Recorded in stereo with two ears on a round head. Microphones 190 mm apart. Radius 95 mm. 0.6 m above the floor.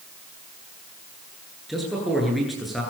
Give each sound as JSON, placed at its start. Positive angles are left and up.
{"t": 1.7, "sound": "a man speaking", "side_deg": 0, "distance_m": 10.0}